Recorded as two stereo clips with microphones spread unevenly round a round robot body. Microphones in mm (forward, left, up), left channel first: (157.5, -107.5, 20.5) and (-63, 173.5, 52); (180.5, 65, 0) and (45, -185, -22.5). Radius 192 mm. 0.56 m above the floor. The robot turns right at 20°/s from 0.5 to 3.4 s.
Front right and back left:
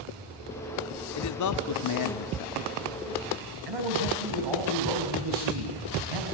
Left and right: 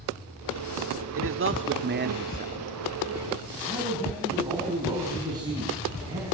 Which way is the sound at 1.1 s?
85° right.